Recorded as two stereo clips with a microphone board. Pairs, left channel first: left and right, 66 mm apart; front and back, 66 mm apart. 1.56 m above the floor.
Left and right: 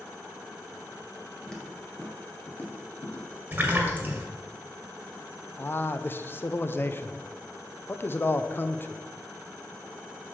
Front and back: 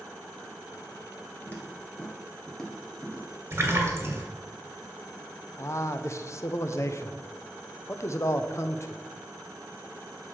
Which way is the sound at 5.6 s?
35° left.